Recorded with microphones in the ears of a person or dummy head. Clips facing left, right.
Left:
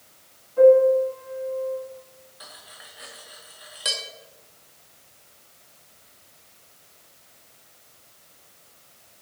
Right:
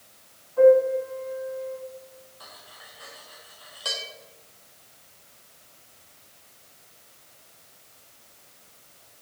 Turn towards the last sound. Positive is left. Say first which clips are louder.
# left 1 dB
turn(degrees=25)  # may be behind; listen again after turning